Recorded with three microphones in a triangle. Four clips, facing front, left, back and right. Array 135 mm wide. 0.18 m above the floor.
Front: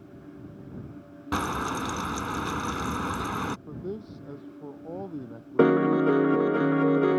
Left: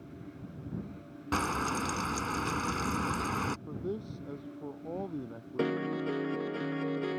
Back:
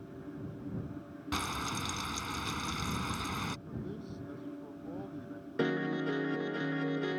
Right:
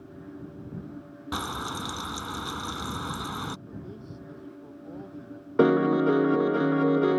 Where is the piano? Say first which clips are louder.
Right 11 dB, front 13 dB; 40° right.